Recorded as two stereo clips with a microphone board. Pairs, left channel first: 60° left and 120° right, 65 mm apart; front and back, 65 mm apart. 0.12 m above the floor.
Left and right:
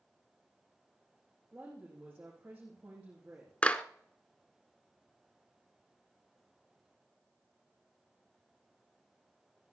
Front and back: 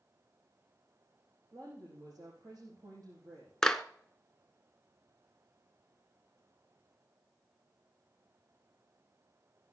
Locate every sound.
1.5 s a woman speaking: 170° left, 5.5 m
3.6 s a clap: 65° left, 0.8 m